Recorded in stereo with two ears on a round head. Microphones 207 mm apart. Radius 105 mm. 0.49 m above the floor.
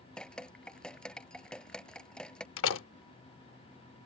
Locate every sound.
0.2 s dripping: 5° left (ahead or behind)
2.6 s a door slam: 55° left (ahead or behind)